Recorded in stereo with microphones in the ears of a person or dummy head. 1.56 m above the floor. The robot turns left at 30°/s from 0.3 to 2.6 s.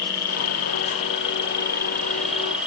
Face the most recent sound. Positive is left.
turn(degrees=-5)